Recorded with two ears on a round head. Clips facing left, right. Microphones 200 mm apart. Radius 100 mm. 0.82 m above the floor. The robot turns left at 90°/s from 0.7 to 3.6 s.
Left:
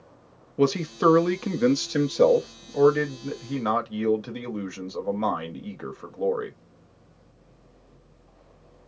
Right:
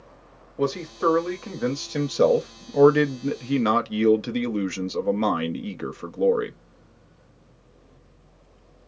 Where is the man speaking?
125° left, 0.8 m; by 6.6 s 135° right, 0.8 m.